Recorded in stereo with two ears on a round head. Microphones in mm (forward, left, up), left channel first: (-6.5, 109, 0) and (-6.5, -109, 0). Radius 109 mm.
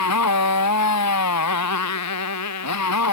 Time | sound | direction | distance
0.0 | a motorcycle | 75° left (ahead or behind) | ?